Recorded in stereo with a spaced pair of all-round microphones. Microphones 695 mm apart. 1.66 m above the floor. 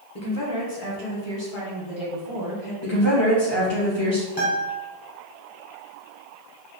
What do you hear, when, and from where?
0.1 s a woman speaking: 20° left (ahead or behind), 1.0 m; by 2.7 s 45° left (ahead or behind), 2.5 m
2.8 s a woman speaking: 40° left (ahead or behind), 2.0 m
4.4 s a guitar: 10° left (ahead or behind), 1.6 m